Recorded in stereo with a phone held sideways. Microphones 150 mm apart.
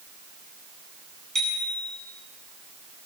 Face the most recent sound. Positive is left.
turn(degrees=5)  # may be behind; listen again after turning